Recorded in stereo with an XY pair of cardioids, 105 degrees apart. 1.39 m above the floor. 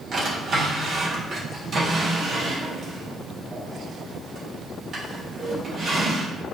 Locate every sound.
0.1 s a drawer: 45° right, 1.7 m